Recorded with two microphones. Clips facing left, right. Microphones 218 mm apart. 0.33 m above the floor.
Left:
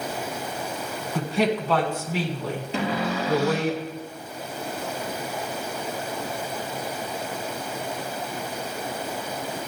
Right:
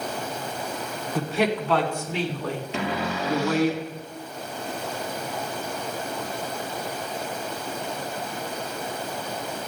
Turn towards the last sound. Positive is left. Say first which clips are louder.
# left 4 dB
turn(degrees=35)  # may be behind; listen again after turning